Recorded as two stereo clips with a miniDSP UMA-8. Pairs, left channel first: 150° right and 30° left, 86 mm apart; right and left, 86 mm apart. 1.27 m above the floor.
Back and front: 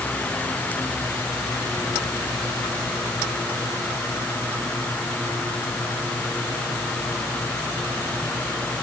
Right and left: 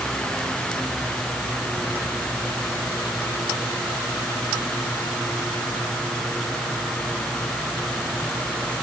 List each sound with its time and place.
Only background noise.